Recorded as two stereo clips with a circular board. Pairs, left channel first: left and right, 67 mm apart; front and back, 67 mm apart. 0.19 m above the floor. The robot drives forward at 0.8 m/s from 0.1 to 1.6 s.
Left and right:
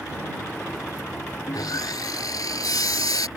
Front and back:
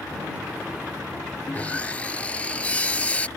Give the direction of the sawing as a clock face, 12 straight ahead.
10 o'clock.